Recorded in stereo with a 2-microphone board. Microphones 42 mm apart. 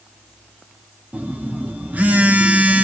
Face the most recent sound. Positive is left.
turn(degrees=-35)  # may be behind; listen again after turning